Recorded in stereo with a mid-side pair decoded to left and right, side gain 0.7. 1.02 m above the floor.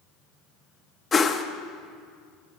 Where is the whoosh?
25° left, 0.8 m.